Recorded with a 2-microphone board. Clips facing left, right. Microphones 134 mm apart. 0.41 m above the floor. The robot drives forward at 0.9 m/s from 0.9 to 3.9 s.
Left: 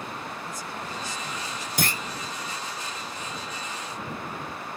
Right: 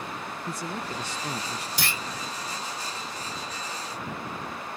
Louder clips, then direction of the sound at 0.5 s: Right 2 dB; 75° right (ahead or behind).